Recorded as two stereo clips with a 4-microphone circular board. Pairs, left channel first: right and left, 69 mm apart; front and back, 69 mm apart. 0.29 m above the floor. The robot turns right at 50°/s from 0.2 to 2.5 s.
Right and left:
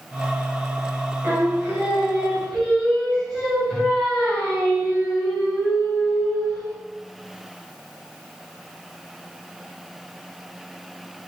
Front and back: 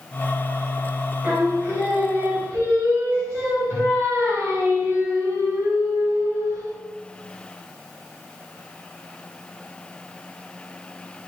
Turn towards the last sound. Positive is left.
turn(degrees=-170)